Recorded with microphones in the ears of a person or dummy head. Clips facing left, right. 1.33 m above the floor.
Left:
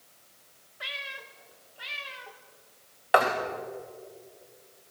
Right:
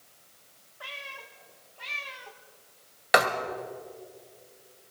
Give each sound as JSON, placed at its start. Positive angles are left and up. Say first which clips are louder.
{"t": 0.8, "sound": "a cat meowing", "louder": "left 1 dB", "side_deg": 30, "distance_m": 1.1}
{"t": 3.1, "sound": "writing", "louder": "left 1 dB", "side_deg": -20, "distance_m": 1.4}